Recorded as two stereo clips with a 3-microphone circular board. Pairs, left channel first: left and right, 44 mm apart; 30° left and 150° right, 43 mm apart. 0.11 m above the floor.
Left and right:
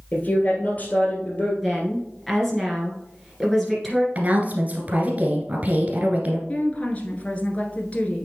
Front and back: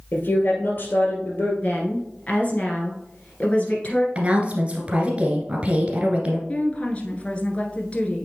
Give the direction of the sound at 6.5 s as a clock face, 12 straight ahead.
10 o'clock.